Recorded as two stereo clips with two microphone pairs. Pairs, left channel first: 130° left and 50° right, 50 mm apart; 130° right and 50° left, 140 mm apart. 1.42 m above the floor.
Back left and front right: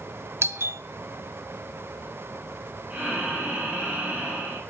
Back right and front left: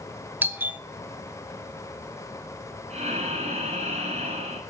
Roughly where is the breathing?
Ahead.